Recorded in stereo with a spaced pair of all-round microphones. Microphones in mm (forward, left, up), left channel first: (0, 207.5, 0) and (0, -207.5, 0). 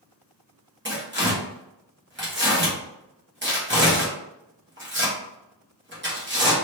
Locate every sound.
0.8 s tearing paper: 25° right (ahead or behind), 1.0 m